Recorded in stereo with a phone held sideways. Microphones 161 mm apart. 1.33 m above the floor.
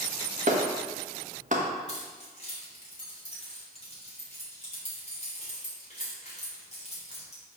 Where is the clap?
55° right (ahead or behind), 1.4 m.